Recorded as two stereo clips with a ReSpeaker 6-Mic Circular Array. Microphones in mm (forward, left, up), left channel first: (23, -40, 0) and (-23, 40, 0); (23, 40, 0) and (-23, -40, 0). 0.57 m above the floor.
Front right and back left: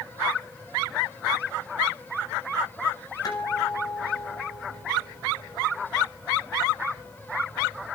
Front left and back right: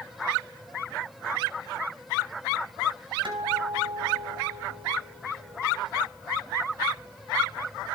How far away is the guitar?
About 4 m.